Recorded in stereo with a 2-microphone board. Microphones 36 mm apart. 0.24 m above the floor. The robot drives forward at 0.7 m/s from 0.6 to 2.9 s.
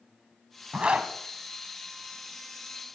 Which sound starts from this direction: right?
A zipper, at 0.7 s.